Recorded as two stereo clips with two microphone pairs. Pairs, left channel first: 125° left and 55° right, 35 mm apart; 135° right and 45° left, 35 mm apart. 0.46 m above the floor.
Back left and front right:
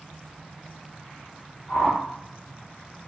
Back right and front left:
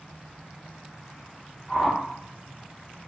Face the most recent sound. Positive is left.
turn(degrees=160)